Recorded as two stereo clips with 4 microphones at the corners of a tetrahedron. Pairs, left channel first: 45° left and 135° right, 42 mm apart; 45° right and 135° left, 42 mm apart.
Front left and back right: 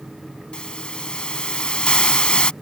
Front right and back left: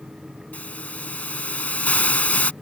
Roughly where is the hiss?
Ahead.